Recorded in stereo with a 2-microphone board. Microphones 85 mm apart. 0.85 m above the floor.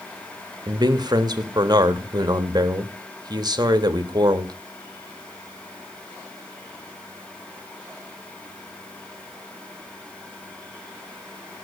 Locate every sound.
0.7 s a man speaking: 50° right (ahead or behind), 1.2 m